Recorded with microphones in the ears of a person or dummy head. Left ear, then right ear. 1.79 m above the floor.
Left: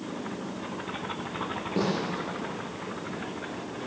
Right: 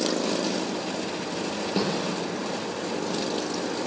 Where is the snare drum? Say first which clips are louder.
Right 1 dB; 30° right (ahead or behind), 5 m.